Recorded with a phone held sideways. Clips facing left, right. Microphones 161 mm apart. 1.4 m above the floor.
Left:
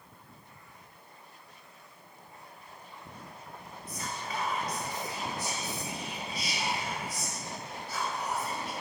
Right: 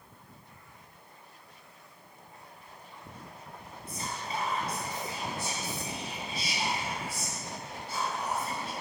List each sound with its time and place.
3.9 s whispering: 30° right (ahead or behind), 2.5 m